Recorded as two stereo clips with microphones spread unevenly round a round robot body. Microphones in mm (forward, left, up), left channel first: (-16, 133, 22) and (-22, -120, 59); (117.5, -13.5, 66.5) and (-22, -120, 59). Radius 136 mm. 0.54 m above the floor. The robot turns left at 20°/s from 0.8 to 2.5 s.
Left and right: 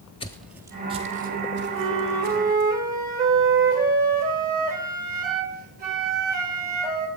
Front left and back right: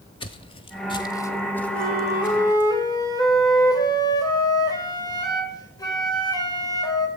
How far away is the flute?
About 3 m.